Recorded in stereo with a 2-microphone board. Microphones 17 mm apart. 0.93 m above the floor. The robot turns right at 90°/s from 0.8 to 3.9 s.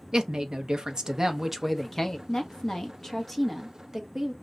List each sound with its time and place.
0.1 s a woman speaking: 85° right, 0.5 m; by 2.2 s 40° left, 0.5 m
2.3 s a woman speaking: 65° left, 0.7 m; by 4.3 s 150° right, 0.7 m